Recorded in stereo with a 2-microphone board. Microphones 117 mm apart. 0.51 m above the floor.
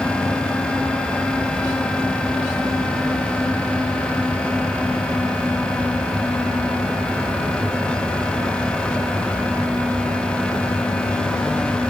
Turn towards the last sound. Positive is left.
No sound to turn to.